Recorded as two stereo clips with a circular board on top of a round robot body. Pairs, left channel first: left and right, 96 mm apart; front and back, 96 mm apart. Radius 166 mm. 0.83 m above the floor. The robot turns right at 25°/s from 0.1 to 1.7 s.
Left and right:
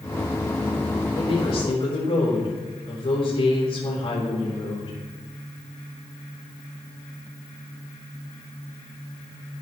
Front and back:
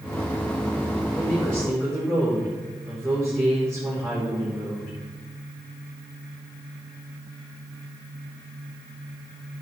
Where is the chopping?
No chopping in this recording.